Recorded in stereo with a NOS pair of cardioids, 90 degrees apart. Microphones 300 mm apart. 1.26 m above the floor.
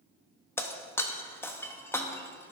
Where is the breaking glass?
10° left, 1.0 m.